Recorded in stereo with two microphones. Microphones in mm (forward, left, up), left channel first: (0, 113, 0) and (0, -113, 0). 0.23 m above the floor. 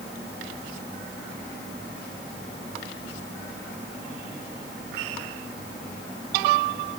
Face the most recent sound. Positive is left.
No sound to turn to.